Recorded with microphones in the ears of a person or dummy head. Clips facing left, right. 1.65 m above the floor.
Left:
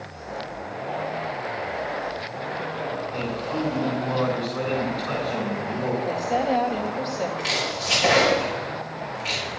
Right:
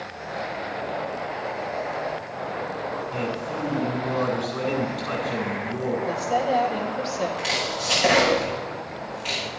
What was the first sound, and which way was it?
A man speaking, 30° right (ahead or behind).